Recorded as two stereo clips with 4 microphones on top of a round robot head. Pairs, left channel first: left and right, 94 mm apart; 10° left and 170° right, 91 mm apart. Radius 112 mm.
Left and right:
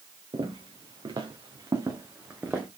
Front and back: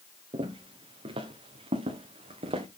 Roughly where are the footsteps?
Behind right.